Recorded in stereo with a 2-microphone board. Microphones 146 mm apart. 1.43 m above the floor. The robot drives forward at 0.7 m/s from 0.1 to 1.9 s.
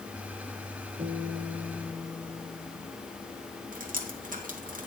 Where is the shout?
I don't hear a shout.